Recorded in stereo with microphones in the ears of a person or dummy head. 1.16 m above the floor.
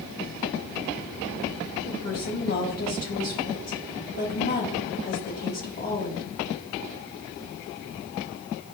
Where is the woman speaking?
50° left (ahead or behind), 3 m.